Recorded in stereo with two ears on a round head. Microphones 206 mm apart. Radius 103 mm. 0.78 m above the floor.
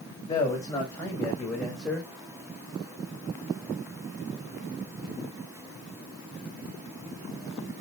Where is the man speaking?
15° left (ahead or behind), 4.5 m; by 2.1 s 5° right (ahead or behind), 3 m.